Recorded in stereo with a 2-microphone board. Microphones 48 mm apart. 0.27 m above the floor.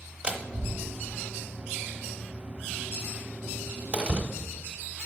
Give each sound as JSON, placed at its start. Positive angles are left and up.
{"t": 0.2, "sound": "a door slam", "side_deg": -20, "distance_m": 0.9}